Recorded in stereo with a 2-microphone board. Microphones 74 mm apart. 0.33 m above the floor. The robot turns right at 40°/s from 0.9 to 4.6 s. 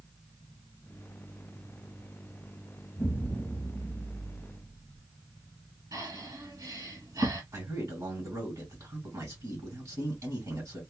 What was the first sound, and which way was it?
An explosion, straight behind.